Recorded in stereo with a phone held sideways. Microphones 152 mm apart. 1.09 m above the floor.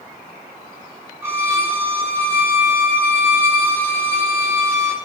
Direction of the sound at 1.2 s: 15° right (ahead or behind).